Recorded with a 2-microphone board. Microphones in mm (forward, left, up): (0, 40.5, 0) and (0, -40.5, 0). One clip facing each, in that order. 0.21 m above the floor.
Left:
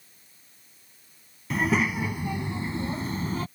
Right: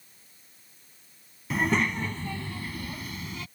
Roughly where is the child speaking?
Centre.